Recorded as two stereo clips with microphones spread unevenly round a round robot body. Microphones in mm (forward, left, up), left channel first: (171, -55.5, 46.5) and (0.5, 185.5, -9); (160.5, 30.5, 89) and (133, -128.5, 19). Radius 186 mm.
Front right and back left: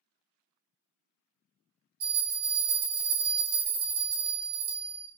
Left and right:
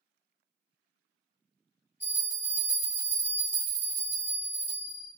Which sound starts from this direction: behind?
A bell, at 2.0 s.